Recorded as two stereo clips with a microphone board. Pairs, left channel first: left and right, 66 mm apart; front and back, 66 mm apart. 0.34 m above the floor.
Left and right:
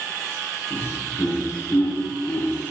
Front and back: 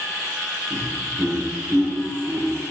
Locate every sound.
0.7 s laughter: 130° left, 7.5 m